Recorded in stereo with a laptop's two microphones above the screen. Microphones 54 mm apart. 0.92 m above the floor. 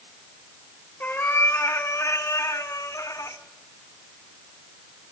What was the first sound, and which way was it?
A cat meowing, 30° left (ahead or behind).